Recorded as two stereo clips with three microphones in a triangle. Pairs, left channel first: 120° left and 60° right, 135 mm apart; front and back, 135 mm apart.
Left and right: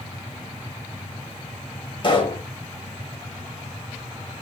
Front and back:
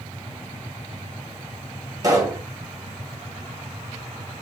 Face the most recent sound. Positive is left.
turn(degrees=135)